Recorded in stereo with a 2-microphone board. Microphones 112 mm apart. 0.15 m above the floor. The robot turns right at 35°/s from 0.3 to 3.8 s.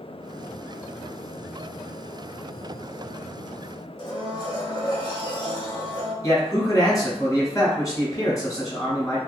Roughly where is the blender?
Left.